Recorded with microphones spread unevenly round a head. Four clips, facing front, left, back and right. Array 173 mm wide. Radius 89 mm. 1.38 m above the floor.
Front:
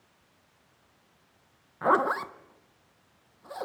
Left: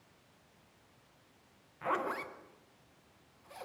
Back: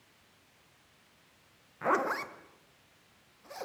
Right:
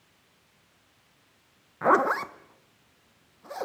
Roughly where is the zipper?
Right.